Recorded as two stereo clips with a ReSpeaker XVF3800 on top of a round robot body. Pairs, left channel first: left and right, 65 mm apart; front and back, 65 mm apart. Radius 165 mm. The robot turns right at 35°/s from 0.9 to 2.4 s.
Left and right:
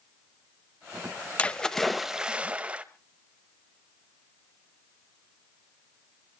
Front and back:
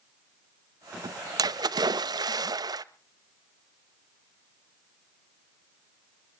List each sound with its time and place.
1.4 s a splash: 160° left, 0.7 m; by 2.8 s 165° right, 0.7 m